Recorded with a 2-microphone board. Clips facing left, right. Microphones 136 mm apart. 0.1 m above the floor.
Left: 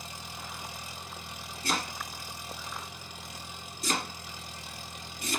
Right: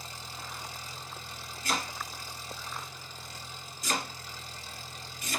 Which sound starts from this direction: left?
Chopping, at 1.6 s.